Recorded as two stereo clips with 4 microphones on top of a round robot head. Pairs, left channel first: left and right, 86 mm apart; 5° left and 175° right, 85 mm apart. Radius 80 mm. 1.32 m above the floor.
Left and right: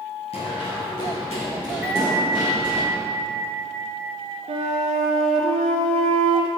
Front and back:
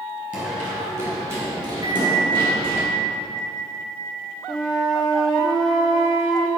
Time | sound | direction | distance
0.3 | running footsteps | 125° left | 1.7 m
1.8 | a bell | 15° right | 1.0 m
4.5 | a flute | 80° right | 0.5 m